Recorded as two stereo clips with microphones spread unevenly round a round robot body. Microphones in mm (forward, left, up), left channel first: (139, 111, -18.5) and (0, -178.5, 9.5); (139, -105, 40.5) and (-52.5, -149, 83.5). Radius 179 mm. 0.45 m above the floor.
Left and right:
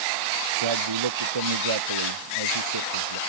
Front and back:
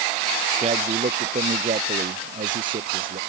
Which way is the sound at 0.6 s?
115° right.